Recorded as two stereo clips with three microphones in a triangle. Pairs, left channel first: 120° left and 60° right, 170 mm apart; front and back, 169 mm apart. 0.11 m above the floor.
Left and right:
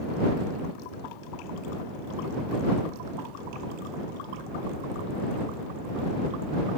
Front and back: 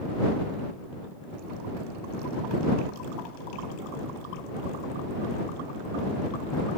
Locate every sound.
Only background noise.